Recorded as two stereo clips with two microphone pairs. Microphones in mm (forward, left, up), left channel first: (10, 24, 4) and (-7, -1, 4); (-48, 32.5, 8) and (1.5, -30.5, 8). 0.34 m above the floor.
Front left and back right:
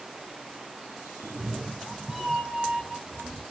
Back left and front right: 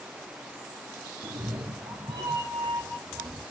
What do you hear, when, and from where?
1.2 s a cat meowing: 75° right, 1.7 m; by 3.4 s 20° right, 3.5 m